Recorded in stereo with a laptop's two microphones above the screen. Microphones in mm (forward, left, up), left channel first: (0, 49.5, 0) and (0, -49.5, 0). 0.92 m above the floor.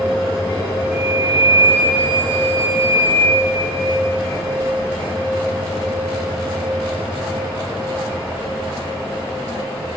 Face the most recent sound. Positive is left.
turn(degrees=-10)  # may be behind; listen again after turning